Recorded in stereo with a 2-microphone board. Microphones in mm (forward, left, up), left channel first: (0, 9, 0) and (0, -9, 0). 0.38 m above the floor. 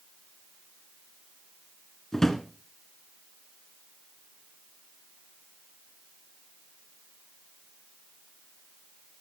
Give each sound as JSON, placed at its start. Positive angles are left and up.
{"t": 2.1, "sound": "a drawer", "side_deg": 25, "distance_m": 1.2}